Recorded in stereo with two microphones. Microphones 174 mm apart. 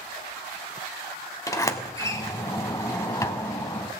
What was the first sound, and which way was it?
A sliding door, 20° left (ahead or behind).